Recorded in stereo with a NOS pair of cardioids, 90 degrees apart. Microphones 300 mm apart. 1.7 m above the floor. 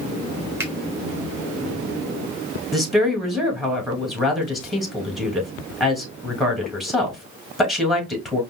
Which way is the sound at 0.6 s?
10° right.